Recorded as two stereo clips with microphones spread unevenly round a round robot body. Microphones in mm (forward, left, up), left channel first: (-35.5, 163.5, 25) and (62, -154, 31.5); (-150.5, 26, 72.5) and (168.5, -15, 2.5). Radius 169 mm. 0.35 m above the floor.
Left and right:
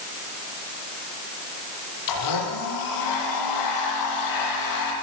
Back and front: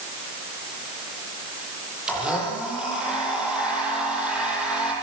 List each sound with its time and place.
2.1 s a blender: 80° left, 9.5 m